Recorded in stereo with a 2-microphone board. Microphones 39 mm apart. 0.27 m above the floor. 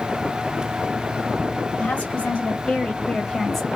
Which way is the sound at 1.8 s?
35° left (ahead or behind).